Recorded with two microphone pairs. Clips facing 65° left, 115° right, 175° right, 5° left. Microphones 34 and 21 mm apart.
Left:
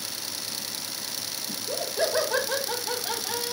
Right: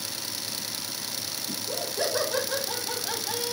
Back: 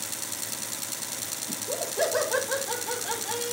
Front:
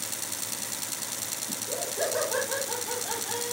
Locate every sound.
1.5 s laughter: 130° left, 1.8 m; by 3.5 s 105° left, 3 m